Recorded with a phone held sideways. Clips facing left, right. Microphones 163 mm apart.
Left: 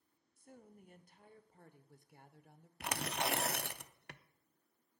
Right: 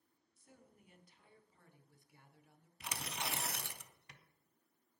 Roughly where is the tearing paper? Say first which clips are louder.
Left 7 dB; left.